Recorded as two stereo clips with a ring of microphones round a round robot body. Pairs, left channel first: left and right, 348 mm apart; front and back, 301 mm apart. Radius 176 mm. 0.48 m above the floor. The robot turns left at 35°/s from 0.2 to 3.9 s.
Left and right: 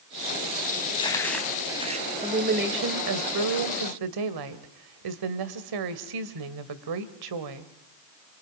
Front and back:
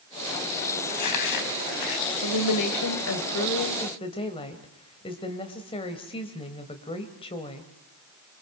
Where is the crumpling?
20° left, 4.5 m; by 2.1 s 20° right, 4.5 m.